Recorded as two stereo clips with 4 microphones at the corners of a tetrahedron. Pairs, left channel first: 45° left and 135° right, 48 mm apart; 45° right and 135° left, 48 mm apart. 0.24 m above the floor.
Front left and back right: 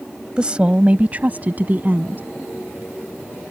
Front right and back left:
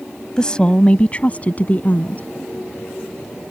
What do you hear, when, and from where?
0.4 s a woman speaking: 95° right